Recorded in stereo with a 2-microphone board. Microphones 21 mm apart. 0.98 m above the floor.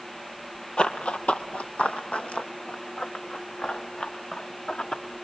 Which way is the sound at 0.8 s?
45° left (ahead or behind).